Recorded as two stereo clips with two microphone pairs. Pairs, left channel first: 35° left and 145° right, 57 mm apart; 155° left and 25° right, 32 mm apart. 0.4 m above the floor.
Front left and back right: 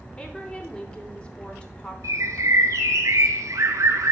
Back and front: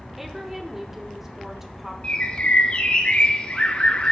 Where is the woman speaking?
35° left, 0.8 m.